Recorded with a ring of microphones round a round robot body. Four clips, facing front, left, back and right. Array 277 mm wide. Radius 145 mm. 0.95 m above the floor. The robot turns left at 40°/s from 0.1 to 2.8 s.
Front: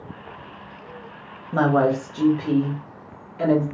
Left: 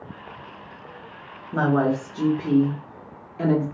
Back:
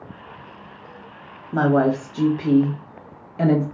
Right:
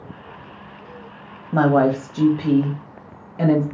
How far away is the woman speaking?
About 1.1 m.